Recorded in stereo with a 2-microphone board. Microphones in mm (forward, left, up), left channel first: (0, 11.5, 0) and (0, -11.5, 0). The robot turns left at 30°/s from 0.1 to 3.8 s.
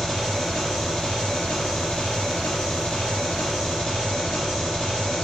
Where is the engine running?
155° left, 2 m; by 5.2 s 45° left, 2 m.